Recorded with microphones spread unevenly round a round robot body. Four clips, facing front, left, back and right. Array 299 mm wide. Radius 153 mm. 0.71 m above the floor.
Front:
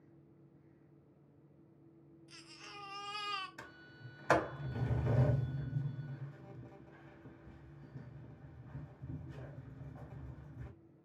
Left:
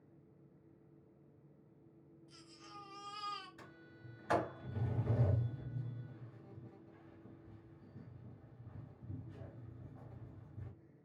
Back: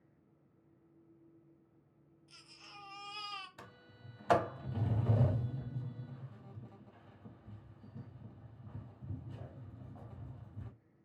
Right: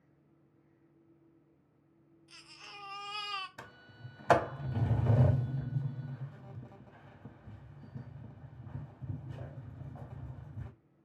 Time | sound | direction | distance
2.3 | a baby crying | 75° right | 0.8 m
3.6 | a sliding door | 85° right | 0.8 m